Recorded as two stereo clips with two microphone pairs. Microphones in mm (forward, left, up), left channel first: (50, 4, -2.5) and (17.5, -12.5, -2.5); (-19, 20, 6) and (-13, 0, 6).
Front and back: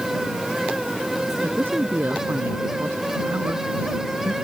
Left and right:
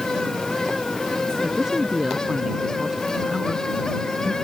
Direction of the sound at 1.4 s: 140° right.